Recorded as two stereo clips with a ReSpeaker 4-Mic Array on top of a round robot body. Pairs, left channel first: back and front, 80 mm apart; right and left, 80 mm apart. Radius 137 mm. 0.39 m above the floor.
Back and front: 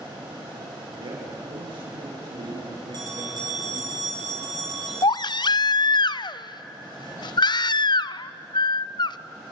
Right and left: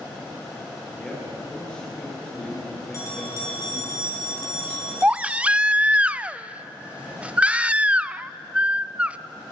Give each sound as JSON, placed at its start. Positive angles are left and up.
{"t": 0.9, "sound": "a man speaking", "azimuth_deg": -10, "distance_m": 8.0}
{"t": 2.9, "sound": "a bell", "azimuth_deg": -35, "distance_m": 9.0}
{"t": 5.0, "sound": "a baby crying", "azimuth_deg": 165, "distance_m": 0.5}